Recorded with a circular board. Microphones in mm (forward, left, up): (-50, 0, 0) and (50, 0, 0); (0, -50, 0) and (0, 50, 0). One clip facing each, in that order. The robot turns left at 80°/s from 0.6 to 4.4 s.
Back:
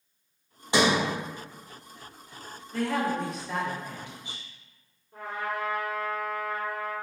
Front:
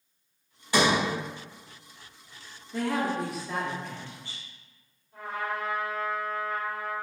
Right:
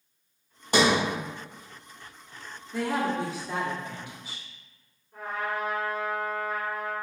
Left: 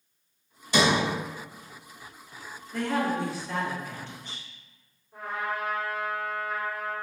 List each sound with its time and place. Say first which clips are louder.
0.7 s a sliding door: even, right 1 dB; 115° right, 1.1 m; by 1.0 s 140° right, 1.1 m
2.7 s a woman speaking: even, even; 30° right, 0.7 m; by 4.4 s 165° right, 0.7 m
5.1 s a trumpet: even, right 1 dB; 170° left, 1.7 m